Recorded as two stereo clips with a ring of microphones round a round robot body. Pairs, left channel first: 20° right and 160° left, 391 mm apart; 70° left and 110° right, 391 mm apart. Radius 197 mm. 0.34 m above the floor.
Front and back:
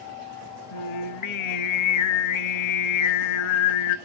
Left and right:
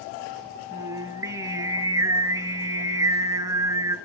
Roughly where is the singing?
Ahead right.